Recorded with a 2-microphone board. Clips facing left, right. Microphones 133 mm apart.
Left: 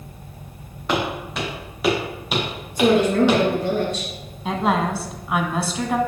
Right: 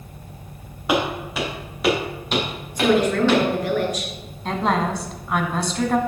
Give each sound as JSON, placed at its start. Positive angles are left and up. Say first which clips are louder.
{"t": 0.9, "sound": "footsteps", "louder": "right 2 dB", "side_deg": -10, "distance_m": 4.0}
{"t": 2.8, "sound": "a woman speaking", "louder": "left 2 dB", "side_deg": 30, "distance_m": 2.0}
{"t": 4.5, "sound": "a woman speaking", "louder": "left 1 dB", "side_deg": 5, "distance_m": 1.0}